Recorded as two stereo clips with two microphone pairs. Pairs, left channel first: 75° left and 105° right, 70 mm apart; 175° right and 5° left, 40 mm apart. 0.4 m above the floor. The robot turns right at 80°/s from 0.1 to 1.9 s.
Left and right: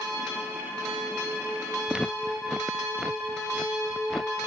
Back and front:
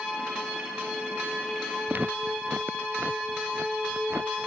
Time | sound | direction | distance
1.9 | footsteps | 30° right | ?